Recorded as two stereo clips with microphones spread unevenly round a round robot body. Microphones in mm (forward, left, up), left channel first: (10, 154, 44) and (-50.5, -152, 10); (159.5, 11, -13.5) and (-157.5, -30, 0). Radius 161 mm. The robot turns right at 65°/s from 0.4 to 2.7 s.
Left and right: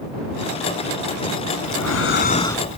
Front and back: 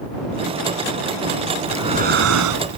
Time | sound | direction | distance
1.7 | breathing | 100° left | ?